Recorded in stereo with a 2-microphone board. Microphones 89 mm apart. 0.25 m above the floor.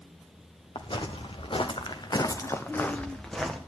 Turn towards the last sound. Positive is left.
turn(degrees=0)  # may be behind; listen again after turning